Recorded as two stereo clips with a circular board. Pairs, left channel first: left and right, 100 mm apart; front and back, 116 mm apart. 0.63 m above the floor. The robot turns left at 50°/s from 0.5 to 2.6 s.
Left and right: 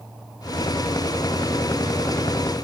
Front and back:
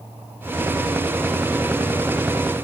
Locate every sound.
Only background noise.